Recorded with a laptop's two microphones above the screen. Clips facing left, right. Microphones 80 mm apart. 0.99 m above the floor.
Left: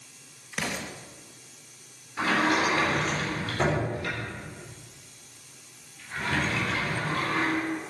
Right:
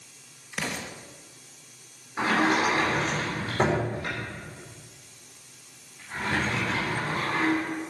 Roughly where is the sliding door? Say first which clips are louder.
Right 1 dB; right.